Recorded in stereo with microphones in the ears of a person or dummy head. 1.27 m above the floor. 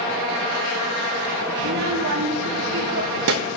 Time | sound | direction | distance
1.6 | a child speaking | 65° right (ahead or behind) | 0.7 m